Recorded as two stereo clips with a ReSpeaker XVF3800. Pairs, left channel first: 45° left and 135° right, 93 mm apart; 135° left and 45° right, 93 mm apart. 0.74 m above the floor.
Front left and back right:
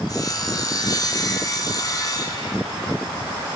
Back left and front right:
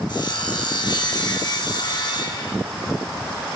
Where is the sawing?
95° left, 4 m.